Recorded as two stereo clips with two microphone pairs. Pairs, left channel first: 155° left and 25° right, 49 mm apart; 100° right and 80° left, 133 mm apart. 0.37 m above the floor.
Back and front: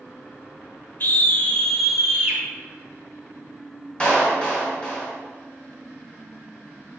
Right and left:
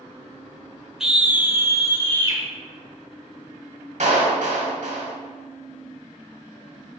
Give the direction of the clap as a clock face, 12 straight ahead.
9 o'clock.